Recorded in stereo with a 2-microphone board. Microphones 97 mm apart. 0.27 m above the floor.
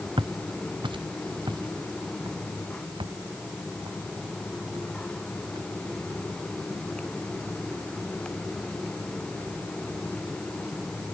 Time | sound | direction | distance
0.2 | footsteps | 65° right (ahead or behind) | ?